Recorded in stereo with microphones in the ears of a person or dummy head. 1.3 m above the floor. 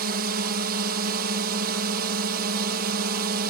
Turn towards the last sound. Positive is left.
turn(degrees=-45)  # may be behind; listen again after turning